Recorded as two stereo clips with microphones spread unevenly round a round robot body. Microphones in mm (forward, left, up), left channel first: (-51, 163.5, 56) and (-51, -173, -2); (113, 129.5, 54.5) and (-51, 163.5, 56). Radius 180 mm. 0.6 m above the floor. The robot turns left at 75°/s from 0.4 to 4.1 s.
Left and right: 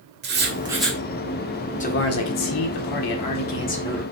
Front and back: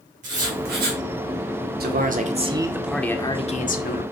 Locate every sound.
0.2 s writing: 145° right, 2.5 m; by 1.0 s 170° left, 2.5 m
1.8 s a man speaking: 160° left, 2.0 m; by 4.0 s 5° right, 2.0 m